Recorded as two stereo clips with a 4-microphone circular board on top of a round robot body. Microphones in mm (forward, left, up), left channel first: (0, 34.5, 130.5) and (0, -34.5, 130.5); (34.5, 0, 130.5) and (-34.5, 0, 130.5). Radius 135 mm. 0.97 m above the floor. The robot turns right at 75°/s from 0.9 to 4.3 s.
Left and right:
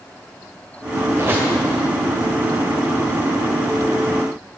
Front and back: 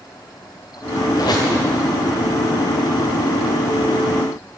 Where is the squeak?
40° right, 1.8 m; by 1.5 s 10° right, 1.8 m.